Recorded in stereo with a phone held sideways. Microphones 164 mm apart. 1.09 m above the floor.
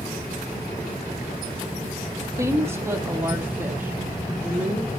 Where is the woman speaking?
20° right (ahead or behind), 1.3 m; by 4.9 s 10° right (ahead or behind), 2.5 m.